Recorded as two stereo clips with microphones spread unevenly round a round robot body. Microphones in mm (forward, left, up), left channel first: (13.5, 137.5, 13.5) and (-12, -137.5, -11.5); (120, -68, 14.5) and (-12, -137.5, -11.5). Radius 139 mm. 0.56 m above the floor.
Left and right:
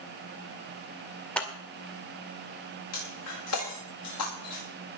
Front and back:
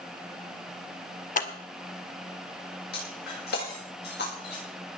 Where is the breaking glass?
50° left, 7 m.